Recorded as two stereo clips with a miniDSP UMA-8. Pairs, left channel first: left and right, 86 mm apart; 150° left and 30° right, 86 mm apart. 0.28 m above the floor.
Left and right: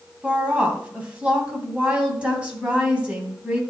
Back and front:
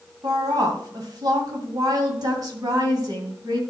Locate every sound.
0.2 s a woman speaking: 15° right, 2.5 m